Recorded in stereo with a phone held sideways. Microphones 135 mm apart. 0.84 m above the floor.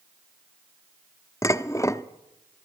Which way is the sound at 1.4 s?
20° left (ahead or behind).